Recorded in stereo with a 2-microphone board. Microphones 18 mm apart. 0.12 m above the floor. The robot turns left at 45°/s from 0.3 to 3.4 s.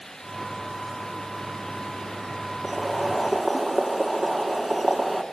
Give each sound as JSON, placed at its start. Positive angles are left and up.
{"t": 2.6, "sound": "boiling", "side_deg": -25, "distance_m": 1.7}